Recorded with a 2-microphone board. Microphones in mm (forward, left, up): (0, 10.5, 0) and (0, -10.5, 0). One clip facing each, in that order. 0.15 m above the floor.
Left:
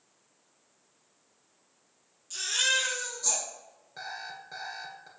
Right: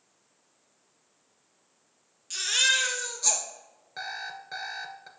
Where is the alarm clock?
30° right (ahead or behind), 0.9 m.